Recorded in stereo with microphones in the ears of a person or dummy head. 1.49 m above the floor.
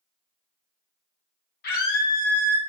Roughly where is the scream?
Left.